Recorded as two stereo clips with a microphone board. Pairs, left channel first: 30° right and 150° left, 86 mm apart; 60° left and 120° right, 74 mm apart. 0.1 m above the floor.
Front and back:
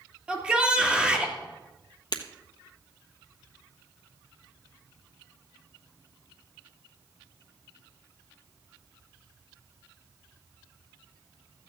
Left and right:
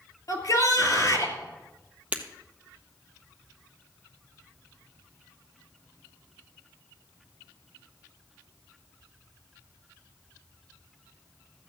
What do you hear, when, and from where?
0.3 s a shout: 75° left, 2.5 m
2.1 s breaking glass: 55° right, 1.3 m